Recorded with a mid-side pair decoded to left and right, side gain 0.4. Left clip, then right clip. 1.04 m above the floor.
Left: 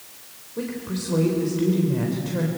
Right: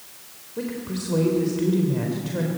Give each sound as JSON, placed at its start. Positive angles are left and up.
{"t": 0.6, "sound": "a woman speaking", "azimuth_deg": -5, "distance_m": 4.0}